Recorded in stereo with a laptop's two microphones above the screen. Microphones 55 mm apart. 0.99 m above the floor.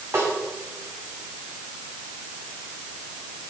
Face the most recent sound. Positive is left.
turn(degrees=-45)  # may be behind; listen again after turning